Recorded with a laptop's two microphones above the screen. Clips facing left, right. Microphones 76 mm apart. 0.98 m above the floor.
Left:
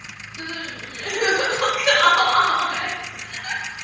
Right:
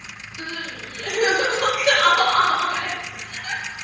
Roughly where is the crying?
Left.